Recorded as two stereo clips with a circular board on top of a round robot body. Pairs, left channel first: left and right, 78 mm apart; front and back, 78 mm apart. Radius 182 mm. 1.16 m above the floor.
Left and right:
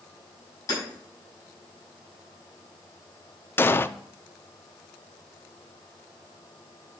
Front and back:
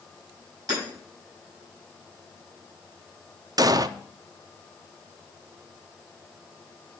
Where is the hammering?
135° left, 6 m.